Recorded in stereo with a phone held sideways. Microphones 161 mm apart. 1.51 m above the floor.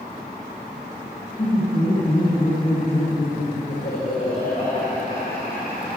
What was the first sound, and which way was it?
Laughter, 60° left (ahead or behind).